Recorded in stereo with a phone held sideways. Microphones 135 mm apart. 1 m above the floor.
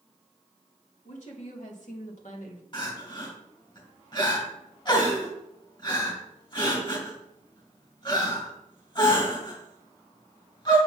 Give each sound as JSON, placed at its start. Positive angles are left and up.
{"t": 1.1, "sound": "a woman speaking", "side_deg": 60, "distance_m": 3.0}
{"t": 2.7, "sound": "crying", "side_deg": 35, "distance_m": 3.5}